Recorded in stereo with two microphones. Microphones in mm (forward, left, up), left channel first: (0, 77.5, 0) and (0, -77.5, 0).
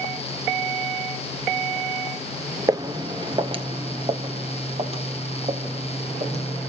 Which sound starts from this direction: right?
Footsteps, at 2.7 s.